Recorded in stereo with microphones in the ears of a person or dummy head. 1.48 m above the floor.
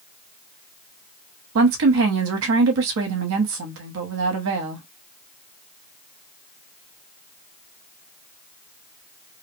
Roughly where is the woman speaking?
Right.